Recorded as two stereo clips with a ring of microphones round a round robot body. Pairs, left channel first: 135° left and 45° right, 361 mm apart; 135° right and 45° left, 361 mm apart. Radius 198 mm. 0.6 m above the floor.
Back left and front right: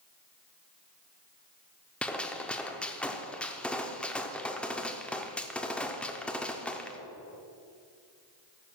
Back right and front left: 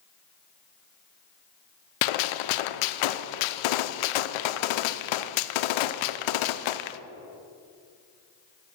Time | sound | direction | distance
2.0 | a gunshot | 140° right | 0.5 m